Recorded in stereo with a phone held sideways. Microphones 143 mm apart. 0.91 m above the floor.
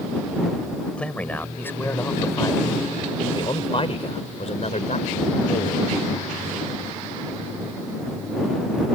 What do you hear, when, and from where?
1.0 s a man speaking: 10° left (ahead or behind); by 5.9 s 65° left (ahead or behind)